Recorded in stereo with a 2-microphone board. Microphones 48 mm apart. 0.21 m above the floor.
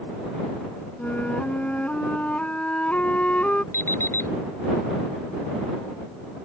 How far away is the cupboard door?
I don't hear a cupboard door.